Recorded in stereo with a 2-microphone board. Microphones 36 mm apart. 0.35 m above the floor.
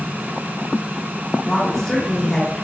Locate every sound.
1.4 s a woman speaking: 10° left (ahead or behind), 1.2 m